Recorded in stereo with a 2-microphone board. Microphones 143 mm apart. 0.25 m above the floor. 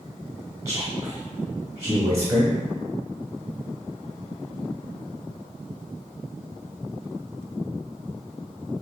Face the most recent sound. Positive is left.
turn(degrees=-20)  # may be behind; listen again after turning